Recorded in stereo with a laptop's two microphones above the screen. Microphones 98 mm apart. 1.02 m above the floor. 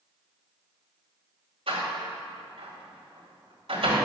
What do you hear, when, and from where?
1.7 s a door slam: 70° right (ahead or behind), 2.5 m